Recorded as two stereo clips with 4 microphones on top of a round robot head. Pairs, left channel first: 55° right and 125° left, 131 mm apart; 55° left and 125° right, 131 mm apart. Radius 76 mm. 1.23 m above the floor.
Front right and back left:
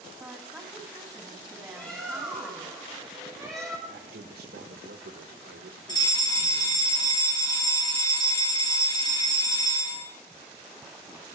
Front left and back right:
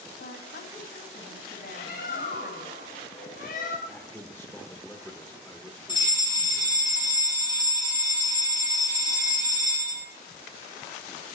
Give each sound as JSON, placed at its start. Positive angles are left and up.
{"t": 0.2, "sound": "a woman speaking", "azimuth_deg": 40, "distance_m": 3.5}
{"t": 1.8, "sound": "a bird", "azimuth_deg": 30, "distance_m": 3.0}
{"t": 3.9, "sound": "a man speaking", "azimuth_deg": 135, "distance_m": 1.0}
{"t": 5.9, "sound": "a fire alarm", "azimuth_deg": 5, "distance_m": 2.5}